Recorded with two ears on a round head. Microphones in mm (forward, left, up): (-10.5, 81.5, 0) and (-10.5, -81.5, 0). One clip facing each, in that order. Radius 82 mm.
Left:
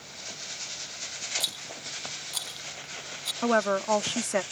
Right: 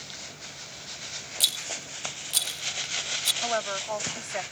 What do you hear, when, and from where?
1.4 s a rattle: 30° right (ahead or behind)
3.4 s a woman speaking: 65° left (ahead or behind)